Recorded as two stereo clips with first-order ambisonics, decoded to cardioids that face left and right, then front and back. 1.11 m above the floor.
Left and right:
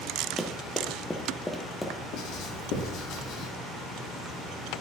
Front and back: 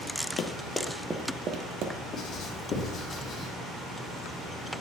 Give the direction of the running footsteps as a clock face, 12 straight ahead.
12 o'clock.